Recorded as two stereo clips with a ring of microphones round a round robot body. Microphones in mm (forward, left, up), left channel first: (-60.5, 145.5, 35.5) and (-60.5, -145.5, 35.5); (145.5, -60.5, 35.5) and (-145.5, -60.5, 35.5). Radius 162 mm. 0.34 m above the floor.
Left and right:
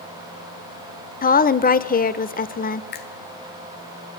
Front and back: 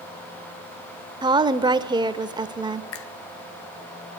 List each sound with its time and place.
1.2 s a woman speaking: 115° left, 1.1 m
2.9 s a finger snap: 40° left, 1.4 m